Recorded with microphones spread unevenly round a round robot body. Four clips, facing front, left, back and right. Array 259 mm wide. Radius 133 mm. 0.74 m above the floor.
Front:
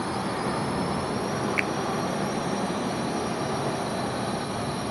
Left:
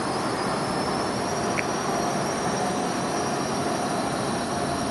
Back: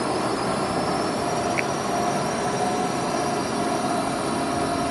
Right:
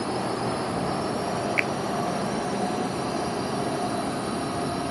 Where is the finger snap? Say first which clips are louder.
Even, back 3 dB; 75° right.